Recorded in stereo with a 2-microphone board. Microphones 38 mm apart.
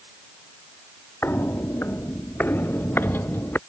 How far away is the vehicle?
No vehicle in this recording.